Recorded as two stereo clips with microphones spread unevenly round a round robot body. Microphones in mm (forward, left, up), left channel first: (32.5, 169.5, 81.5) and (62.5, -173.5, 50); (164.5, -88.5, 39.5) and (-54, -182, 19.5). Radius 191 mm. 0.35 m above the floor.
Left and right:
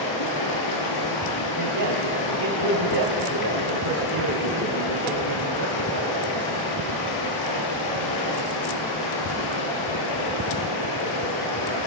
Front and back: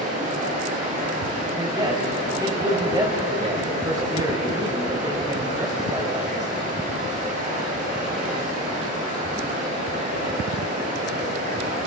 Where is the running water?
135° left, 5.5 m.